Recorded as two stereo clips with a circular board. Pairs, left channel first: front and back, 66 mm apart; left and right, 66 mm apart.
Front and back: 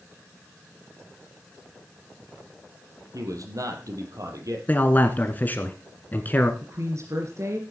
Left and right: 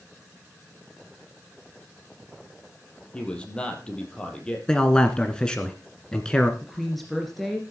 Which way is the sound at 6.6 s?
Straight behind.